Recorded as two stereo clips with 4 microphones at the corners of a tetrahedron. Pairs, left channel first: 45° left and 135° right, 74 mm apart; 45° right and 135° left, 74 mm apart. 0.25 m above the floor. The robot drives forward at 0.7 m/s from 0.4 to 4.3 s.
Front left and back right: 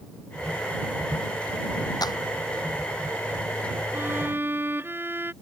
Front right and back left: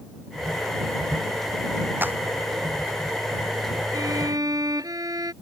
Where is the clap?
75° left.